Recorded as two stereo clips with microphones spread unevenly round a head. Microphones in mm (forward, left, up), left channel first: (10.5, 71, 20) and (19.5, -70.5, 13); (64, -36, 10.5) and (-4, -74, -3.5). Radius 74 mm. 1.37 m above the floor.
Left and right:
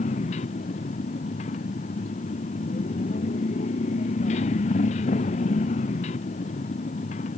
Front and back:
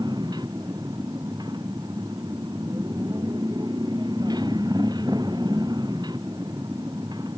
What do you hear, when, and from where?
0.0 s a motorcycle: 140° left